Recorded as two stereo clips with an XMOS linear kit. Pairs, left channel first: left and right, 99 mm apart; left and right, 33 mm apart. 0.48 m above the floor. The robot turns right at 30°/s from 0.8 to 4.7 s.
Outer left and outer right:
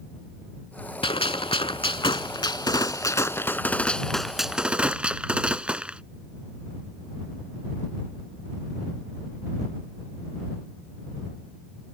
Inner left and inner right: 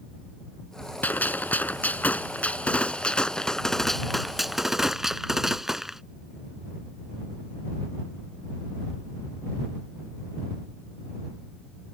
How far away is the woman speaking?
No woman speaking in this recording.